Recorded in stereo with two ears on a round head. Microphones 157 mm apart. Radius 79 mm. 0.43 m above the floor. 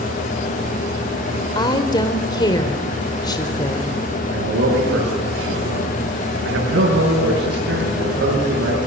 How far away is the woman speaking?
About 1.5 m.